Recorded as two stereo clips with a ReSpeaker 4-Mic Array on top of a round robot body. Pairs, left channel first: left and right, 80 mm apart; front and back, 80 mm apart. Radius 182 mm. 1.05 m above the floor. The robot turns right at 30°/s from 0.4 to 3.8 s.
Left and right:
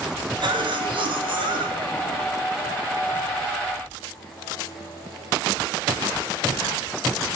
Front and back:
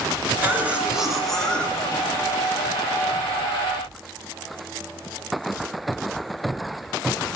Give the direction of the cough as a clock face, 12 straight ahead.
4 o'clock.